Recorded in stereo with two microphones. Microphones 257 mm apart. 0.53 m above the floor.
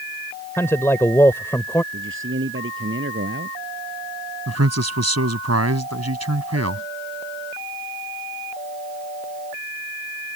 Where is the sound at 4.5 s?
80° right.